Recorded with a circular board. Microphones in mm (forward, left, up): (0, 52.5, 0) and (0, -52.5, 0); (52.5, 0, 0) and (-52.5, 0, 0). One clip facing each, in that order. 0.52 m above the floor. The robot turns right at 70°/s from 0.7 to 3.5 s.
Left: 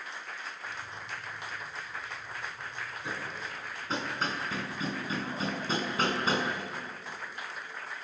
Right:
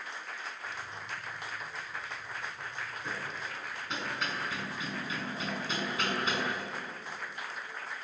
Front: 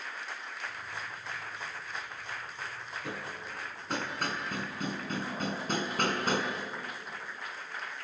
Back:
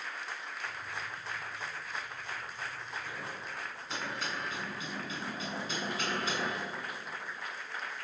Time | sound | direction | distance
3.0 | hammering | 5° left | 5.5 m